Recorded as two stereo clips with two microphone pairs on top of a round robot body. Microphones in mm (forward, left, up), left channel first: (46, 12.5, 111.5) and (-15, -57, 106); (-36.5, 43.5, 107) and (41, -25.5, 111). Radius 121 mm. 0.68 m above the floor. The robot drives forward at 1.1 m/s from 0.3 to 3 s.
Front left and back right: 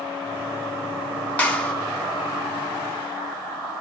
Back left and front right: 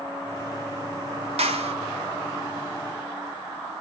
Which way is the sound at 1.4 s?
25° right.